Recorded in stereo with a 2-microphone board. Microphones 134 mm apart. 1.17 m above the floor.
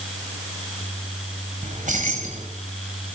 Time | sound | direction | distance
1.6 | keys jangling | 70° right (ahead or behind) | 5.5 m